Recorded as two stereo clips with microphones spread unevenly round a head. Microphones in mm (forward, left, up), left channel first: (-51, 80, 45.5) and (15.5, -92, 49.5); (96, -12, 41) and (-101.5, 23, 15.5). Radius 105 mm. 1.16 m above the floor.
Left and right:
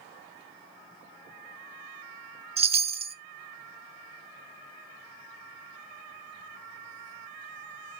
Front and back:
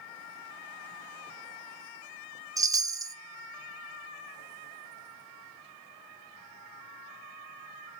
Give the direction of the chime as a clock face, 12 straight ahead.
4 o'clock.